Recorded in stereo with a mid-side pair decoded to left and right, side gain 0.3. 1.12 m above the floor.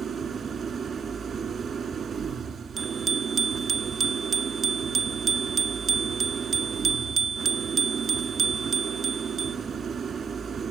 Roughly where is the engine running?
Right.